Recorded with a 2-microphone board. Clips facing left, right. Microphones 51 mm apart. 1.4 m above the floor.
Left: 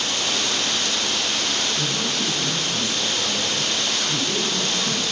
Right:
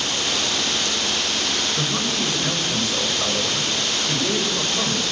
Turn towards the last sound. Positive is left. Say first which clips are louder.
# right 1 dB
turn(degrees=-70)  # may be behind; listen again after turning